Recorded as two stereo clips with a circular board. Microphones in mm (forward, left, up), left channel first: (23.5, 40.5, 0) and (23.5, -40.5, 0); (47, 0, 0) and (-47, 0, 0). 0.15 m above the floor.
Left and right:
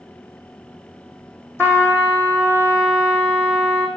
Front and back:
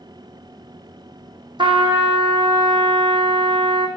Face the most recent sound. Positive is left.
turn(degrees=145)